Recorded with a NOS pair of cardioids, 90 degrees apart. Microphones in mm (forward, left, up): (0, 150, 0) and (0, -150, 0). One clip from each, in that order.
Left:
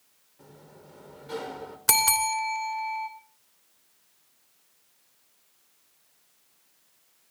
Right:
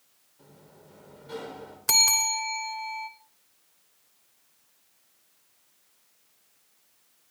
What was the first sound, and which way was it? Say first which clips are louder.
A sliding door: left 3 dB; 25° left.